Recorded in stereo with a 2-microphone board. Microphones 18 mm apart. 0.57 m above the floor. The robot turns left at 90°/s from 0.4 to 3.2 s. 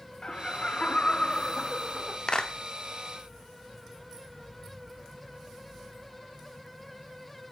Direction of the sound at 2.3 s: 50° left (ahead or behind).